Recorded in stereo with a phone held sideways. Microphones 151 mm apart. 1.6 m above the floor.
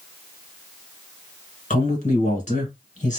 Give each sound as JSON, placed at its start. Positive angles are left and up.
{"t": 1.7, "sound": "a man speaking", "side_deg": 60, "distance_m": 1.5}